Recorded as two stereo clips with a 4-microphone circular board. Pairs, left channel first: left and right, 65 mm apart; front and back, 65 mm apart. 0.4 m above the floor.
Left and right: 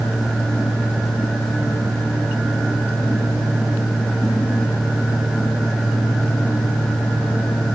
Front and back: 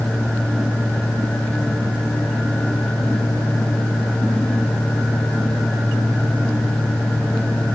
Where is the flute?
I don't hear a flute.